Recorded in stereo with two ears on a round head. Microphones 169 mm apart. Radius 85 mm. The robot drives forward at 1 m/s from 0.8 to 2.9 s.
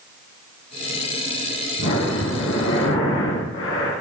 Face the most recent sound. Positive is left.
turn(degrees=80)